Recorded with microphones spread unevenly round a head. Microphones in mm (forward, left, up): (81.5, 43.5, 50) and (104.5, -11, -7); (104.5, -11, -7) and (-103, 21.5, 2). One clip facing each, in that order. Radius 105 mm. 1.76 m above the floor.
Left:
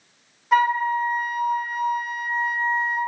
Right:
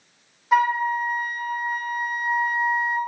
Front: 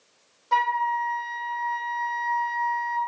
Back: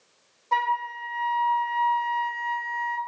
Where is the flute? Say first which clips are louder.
Left 1 dB, front 2 dB; 65° left, 1.7 m.